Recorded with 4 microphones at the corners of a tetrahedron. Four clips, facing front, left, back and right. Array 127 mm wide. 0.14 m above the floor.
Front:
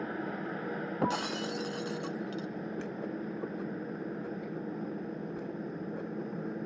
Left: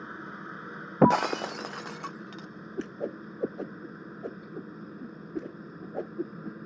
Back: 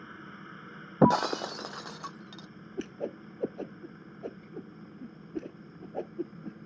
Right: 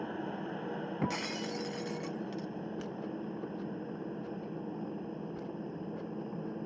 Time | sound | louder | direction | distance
0.0 | a helicopter | right 3 dB, front 10 dB | 20° right | ?
1.0 | breaking glass | left 17 dB, back 10 dB | 120° left | ?
2.8 | a whoosh | left 4 dB, back 5 dB | 110° left | ?